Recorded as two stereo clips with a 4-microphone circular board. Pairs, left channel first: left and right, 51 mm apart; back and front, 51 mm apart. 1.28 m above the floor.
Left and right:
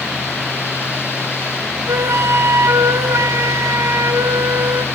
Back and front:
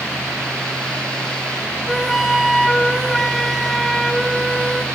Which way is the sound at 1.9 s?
95° right.